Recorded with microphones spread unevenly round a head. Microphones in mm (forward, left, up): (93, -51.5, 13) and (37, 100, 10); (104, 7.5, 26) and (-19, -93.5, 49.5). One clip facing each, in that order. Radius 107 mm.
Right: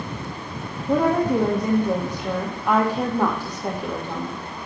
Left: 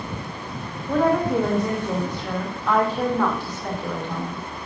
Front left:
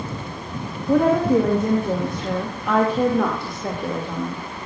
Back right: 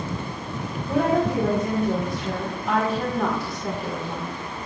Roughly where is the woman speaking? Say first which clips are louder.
Right 1 dB, front left 5 dB; ahead.